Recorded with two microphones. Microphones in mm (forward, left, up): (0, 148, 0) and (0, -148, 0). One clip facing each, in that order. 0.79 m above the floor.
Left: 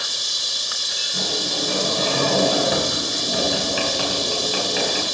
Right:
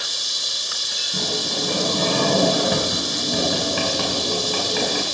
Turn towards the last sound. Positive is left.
turn(degrees=-50)  # may be behind; listen again after turning